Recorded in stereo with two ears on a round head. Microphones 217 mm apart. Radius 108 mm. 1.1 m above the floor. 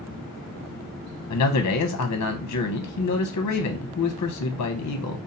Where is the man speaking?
70° left (ahead or behind), 0.6 m.